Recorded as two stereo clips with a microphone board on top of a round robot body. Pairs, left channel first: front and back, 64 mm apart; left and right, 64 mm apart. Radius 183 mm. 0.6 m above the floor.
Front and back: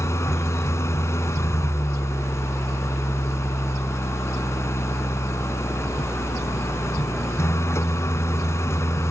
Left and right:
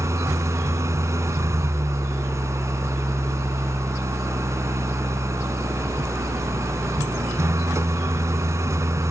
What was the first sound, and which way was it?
An engine running, 45° right.